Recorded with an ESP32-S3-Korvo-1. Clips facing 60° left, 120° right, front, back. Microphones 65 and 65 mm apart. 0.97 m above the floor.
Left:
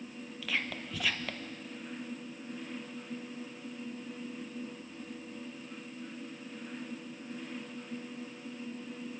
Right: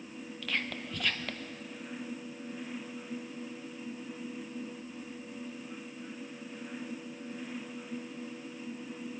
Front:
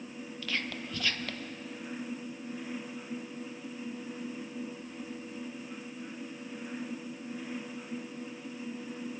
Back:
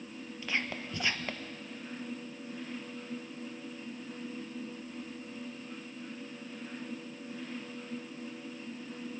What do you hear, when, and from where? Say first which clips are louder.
0.4 s whispering: even, back 1 dB; 140° left, 0.8 m